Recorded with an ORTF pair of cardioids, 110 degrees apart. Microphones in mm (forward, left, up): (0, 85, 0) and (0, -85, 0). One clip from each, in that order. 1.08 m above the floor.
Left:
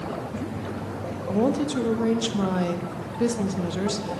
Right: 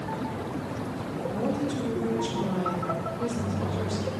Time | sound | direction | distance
1.3 | a woman speaking | 55° left | 1.1 m